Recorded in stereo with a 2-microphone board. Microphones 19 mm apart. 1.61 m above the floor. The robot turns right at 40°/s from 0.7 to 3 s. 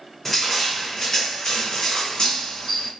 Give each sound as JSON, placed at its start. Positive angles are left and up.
{"t": 0.2, "sound": "crushing", "azimuth_deg": 10, "distance_m": 1.6}